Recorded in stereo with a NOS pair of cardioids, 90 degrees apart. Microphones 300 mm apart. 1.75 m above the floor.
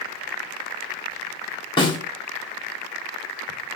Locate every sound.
1.8 s a snare drum: 15° left, 1.2 m